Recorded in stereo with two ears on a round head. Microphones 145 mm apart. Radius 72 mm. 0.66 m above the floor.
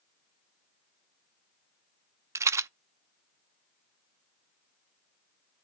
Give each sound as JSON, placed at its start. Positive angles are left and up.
{"t": 2.4, "sound": "a rattle", "side_deg": -15, "distance_m": 0.6}